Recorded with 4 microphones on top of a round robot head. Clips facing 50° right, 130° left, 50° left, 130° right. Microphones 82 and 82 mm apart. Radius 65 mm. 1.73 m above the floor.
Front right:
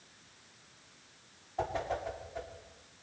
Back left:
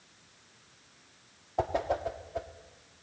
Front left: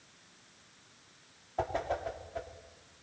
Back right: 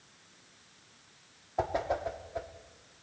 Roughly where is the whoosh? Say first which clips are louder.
Back left 5 dB, back right 2 dB; behind left.